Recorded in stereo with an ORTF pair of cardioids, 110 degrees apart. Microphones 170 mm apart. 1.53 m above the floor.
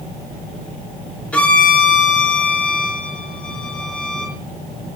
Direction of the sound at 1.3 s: 10° left.